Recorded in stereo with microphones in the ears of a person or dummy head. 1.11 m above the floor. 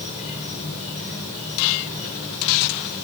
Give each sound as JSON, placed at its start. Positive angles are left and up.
{"t": 0.0, "sound": "an insect", "side_deg": 35, "distance_m": 3.0}